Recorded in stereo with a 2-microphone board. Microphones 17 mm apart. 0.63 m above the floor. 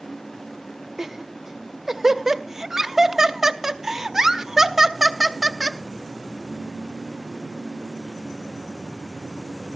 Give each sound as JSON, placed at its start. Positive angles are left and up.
{"t": 1.0, "sound": "laughter", "side_deg": -25, "distance_m": 0.7}